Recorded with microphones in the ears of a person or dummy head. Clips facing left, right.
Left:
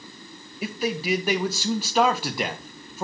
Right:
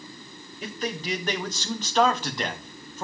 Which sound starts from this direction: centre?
A man speaking, at 0.6 s.